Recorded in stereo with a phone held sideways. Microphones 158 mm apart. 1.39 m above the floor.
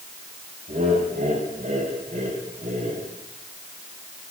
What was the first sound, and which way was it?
Laughter, 55° right (ahead or behind).